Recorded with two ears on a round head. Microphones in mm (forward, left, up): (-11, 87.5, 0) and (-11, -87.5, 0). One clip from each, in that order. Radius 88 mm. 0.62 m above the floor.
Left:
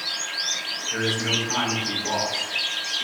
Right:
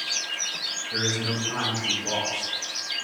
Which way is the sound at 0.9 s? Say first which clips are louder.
Left 4 dB; 20° left (ahead or behind).